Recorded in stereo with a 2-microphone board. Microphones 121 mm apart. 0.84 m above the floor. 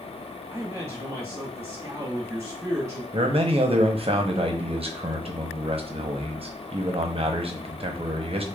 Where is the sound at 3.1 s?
55° right (ahead or behind), 0.7 m.